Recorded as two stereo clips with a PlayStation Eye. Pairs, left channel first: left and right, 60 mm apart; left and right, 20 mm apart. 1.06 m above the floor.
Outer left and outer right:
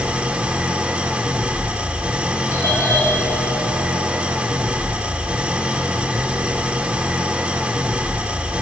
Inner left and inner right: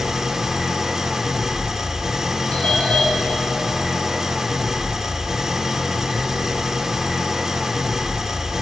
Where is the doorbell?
55° left (ahead or behind), 4 m.